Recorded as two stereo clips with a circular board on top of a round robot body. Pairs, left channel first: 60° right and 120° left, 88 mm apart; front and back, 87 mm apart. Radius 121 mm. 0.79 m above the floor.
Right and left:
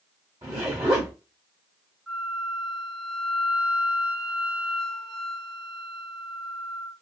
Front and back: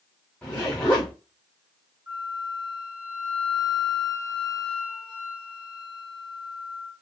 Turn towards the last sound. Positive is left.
turn(degrees=-160)